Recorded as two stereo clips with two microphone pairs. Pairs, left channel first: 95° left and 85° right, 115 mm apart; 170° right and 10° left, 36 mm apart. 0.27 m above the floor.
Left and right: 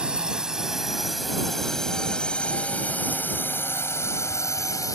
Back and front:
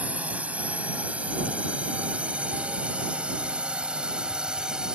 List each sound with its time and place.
0.0 s a drone: 10° right; by 5.0 s 65° left